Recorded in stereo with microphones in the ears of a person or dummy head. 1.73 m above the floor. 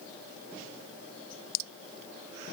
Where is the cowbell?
No cowbell in this recording.